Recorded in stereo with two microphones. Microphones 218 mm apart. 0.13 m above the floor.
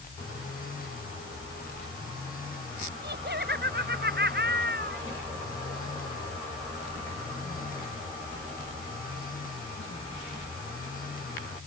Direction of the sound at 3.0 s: 50° right (ahead or behind).